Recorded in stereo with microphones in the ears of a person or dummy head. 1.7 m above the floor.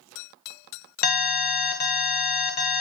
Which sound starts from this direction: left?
An alarm, at 1.0 s.